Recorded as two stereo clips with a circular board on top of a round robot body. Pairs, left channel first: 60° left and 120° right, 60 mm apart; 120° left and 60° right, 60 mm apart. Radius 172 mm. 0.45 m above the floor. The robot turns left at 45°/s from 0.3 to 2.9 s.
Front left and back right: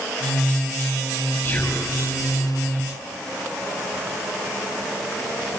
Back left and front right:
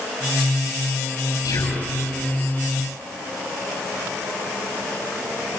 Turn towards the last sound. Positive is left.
turn(degrees=60)